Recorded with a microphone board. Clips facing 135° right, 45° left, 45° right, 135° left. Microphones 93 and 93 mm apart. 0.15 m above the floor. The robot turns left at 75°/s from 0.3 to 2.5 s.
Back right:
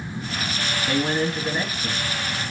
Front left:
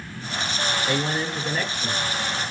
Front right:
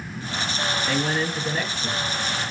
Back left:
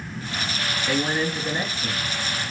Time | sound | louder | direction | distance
0.9 | a man speaking | back right 7 dB, back left 3 dB | 135° right | 2.0 m